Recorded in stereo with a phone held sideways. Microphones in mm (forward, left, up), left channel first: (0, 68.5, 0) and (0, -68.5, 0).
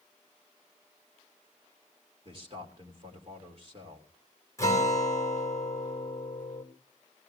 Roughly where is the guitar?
Left.